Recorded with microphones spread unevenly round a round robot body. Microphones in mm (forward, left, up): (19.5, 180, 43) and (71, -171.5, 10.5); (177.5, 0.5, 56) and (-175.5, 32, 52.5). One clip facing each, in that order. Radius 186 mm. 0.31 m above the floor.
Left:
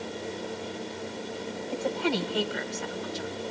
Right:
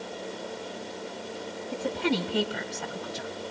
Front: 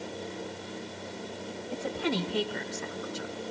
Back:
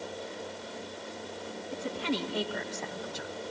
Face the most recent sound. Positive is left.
turn(degrees=-95)